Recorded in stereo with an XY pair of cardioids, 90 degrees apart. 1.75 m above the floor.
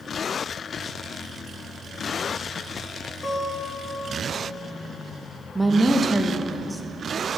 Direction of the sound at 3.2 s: 45° left.